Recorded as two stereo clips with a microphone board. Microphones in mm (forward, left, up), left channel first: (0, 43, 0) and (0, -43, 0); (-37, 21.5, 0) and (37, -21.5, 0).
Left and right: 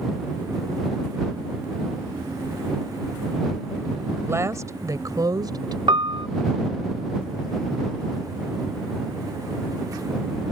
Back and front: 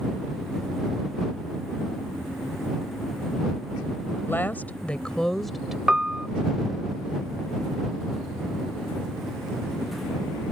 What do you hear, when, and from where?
4.1 s a woman speaking: 150° right; by 5.8 s 115° right
5.9 s a piano: 110° right